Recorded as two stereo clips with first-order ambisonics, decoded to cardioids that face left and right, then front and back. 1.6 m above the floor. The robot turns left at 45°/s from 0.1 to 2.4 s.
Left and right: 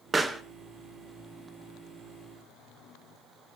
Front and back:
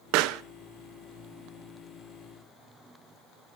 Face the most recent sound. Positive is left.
turn(degrees=90)